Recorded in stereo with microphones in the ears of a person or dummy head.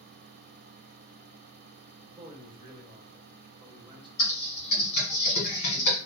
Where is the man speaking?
25° right (ahead or behind), 0.8 m.